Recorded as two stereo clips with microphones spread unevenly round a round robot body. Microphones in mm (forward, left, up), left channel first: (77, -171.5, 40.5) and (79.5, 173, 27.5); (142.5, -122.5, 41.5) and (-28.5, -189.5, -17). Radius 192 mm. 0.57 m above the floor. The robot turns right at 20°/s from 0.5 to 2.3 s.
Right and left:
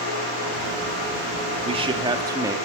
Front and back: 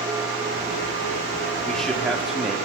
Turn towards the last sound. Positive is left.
turn(degrees=155)